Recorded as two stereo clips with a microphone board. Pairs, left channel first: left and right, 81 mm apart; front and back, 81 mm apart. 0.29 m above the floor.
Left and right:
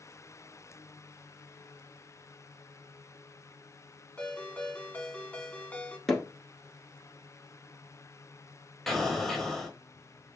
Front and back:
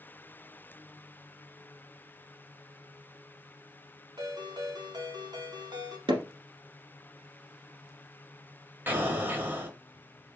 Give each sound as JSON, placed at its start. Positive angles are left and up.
{"t": 4.2, "sound": "a ringtone", "azimuth_deg": 160, "distance_m": 1.2}
{"t": 6.1, "sound": "hammering", "azimuth_deg": 175, "distance_m": 1.5}
{"t": 8.9, "sound": "an explosion", "azimuth_deg": 165, "distance_m": 1.3}